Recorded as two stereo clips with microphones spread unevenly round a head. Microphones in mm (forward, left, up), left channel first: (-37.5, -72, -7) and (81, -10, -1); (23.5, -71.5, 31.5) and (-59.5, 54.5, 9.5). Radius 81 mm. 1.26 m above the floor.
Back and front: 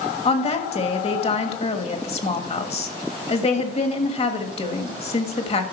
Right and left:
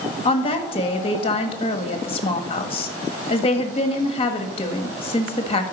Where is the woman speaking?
110° right, 1.5 m.